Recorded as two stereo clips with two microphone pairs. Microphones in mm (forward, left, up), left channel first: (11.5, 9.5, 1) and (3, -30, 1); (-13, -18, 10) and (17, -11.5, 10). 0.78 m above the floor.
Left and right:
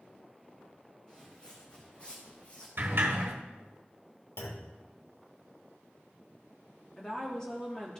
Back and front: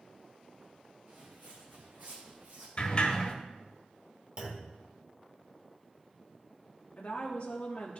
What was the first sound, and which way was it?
Footsteps, 10° left.